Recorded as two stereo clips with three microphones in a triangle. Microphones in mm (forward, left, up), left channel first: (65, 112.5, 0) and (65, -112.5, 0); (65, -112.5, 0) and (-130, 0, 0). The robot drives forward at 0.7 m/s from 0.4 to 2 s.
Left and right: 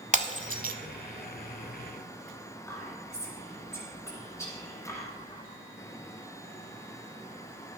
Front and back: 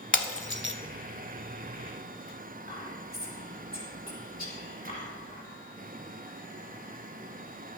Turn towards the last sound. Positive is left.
turn(degrees=15)